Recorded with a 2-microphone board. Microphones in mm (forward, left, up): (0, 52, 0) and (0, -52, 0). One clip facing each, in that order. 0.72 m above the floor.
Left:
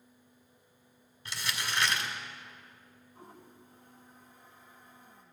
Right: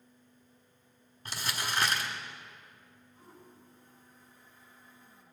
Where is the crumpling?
40° right (ahead or behind), 1.5 m.